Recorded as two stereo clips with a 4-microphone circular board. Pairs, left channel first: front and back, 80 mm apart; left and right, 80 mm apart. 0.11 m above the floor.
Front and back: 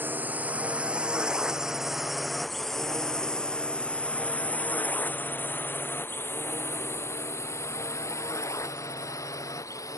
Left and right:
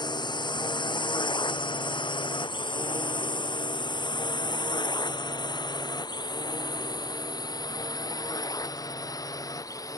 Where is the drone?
115° left; by 10.0 s 45° left.